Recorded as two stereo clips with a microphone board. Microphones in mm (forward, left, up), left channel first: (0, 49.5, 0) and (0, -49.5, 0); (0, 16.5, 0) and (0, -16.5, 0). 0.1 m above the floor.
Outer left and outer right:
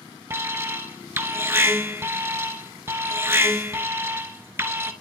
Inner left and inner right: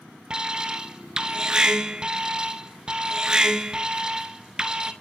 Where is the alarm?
25° right (ahead or behind), 1.0 m.